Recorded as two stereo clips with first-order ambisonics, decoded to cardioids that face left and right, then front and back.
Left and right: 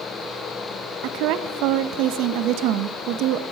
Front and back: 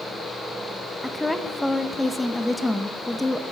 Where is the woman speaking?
85° right, 0.6 m.